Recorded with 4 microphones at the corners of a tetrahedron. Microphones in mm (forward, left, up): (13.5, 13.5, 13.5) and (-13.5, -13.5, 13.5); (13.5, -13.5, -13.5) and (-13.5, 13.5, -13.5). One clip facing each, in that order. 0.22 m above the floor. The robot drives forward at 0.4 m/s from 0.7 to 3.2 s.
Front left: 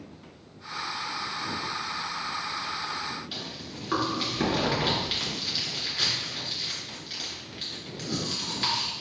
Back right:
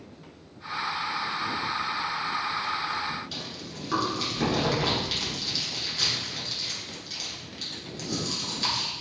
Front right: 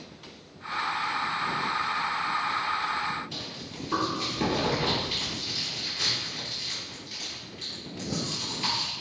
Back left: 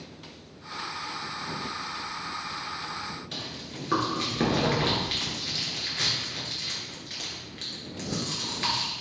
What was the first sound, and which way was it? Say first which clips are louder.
Chewing: even, back left 1 dB; 115° left.